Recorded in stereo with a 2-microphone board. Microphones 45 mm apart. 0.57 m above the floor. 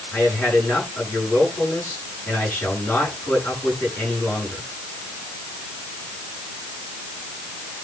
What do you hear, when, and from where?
0.1 s a man speaking: 45° left (ahead or behind), 9.5 m